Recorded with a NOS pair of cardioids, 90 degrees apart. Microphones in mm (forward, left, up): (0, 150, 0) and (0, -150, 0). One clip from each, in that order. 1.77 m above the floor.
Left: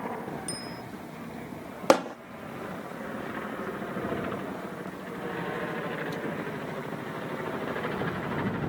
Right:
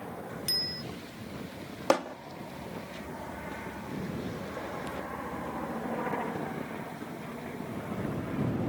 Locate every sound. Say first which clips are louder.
0.5 s a bicycle bell: right 6 dB; 55° right
1.9 s hammering: left 5 dB; 35° left